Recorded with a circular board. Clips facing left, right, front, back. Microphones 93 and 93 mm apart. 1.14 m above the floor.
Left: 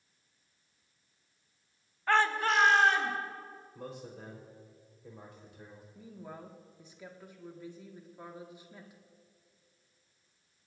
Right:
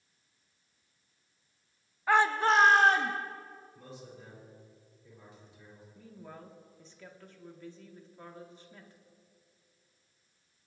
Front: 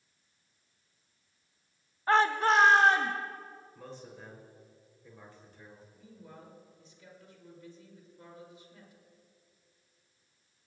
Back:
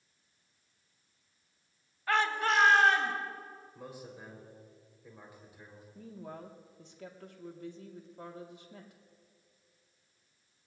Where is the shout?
15° right, 0.8 m; by 3.1 s 55° right, 1.6 m.